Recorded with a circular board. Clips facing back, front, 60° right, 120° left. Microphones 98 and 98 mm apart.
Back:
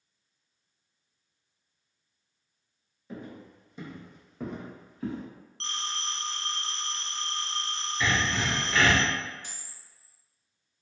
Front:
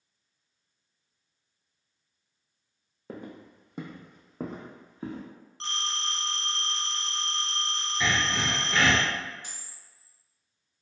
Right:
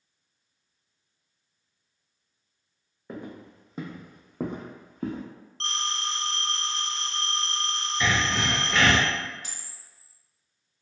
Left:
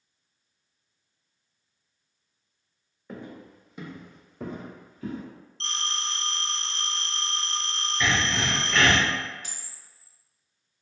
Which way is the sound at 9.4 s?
60° right.